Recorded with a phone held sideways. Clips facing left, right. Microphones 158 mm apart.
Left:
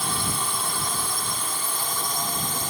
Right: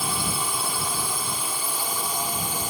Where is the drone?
5° right (ahead or behind); by 2.7 s 10° right (ahead or behind).